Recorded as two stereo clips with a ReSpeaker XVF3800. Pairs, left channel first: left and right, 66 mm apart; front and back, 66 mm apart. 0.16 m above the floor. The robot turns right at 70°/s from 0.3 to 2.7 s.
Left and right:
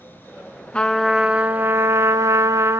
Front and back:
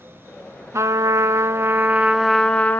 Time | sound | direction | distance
0.7 | a trumpet | 160° left | 0.6 m